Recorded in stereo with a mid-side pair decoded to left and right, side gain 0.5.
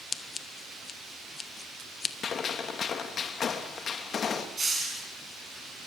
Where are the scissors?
30° left, 1.4 m.